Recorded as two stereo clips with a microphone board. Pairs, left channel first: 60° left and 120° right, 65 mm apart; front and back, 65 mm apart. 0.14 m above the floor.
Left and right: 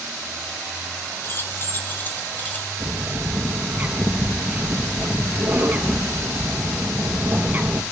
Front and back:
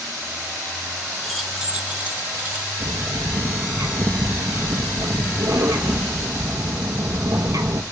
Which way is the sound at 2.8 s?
175° left.